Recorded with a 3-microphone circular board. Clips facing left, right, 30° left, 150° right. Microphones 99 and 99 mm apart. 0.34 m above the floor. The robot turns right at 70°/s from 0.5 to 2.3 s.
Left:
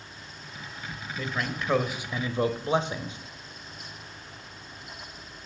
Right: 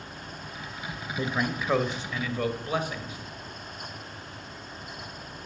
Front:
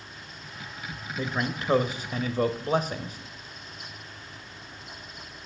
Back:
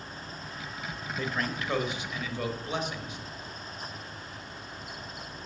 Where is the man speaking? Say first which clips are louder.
Right 3 dB, front 3 dB; 40° right, 1.1 m; by 3.2 s 40° left, 1.1 m.